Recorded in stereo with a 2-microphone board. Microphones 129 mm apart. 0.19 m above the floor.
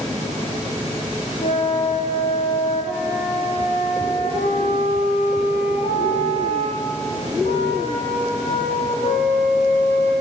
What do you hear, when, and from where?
1.4 s a flute: 70° left (ahead or behind), 6 m